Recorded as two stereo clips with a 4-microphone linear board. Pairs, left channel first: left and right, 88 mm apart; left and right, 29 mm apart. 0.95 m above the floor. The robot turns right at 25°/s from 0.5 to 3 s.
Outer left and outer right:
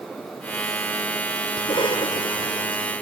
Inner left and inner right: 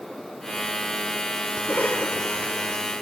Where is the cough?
75° left; by 2.8 s 105° left.